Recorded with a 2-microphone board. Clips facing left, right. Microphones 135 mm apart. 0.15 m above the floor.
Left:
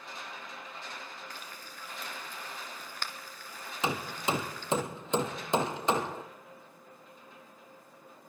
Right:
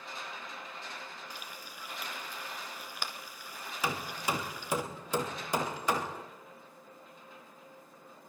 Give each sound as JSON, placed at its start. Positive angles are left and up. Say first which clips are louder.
{"t": 1.3, "sound": "frying", "louder": "even", "side_deg": -10, "distance_m": 1.6}
{"t": 3.8, "sound": "hammering", "louder": "left 2 dB", "side_deg": 20, "distance_m": 1.6}